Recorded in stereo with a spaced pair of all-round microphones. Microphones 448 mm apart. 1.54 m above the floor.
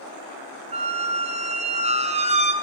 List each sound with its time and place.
0.7 s a squeak: 15° right (ahead or behind), 0.6 m